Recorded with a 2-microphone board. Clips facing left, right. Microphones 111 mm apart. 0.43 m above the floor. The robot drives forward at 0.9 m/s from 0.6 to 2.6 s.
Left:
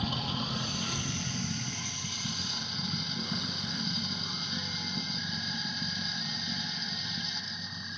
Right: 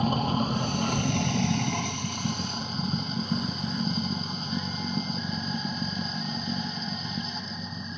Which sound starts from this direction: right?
Running water, at 0.0 s.